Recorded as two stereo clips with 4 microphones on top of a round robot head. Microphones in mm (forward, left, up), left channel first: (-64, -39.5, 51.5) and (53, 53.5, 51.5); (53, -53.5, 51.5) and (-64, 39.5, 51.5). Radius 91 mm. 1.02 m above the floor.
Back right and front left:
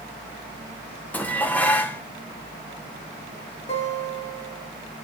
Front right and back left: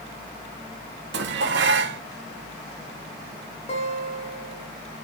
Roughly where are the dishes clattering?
Behind left.